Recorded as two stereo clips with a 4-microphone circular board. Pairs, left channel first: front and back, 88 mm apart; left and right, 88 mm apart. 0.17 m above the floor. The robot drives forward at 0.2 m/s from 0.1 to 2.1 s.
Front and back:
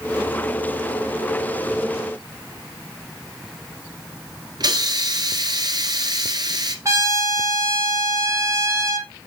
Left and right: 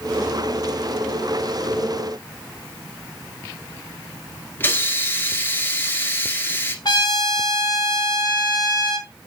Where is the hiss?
155° left, 1.7 m.